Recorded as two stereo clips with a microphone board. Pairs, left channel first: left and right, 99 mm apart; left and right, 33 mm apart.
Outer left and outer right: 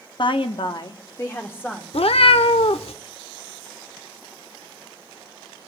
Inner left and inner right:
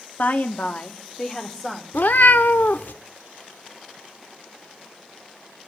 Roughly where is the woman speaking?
Left.